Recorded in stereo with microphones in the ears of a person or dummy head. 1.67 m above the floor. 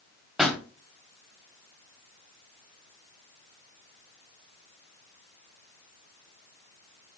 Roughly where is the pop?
Centre.